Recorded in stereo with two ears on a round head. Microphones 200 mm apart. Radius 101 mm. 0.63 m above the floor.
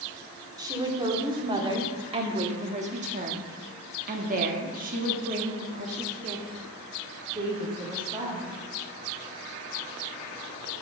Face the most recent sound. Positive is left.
turn(degrees=-20)  # may be behind; listen again after turning